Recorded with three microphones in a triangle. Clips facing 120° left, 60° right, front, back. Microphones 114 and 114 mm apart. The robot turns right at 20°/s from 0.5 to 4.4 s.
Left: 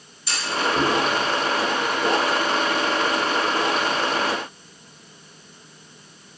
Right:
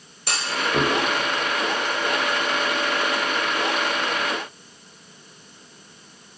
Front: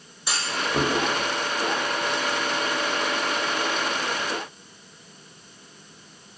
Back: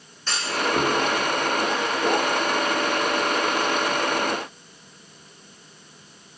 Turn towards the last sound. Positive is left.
turn(degrees=0)